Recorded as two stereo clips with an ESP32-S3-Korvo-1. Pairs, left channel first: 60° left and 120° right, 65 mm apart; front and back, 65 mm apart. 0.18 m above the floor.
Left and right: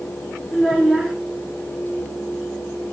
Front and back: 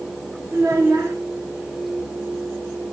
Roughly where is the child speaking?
Behind left.